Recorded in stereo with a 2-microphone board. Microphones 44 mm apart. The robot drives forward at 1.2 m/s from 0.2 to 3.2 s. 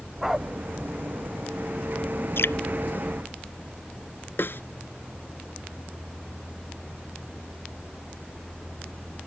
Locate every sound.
0.2 s a dog barking: 10° right (ahead or behind)
2.4 s dripping: 65° left (ahead or behind); by 2.5 s 70° left (ahead or behind)
4.4 s a snare drum: 60° left (ahead or behind)